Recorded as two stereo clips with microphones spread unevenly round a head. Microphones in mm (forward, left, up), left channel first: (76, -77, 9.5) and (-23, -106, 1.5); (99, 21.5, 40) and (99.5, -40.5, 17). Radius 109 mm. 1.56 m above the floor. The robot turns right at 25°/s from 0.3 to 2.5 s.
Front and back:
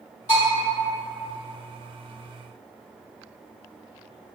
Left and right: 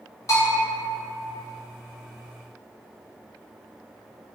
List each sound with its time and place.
0.3 s a bell: 50° left, 1.3 m; by 0.6 s 60° left, 1.3 m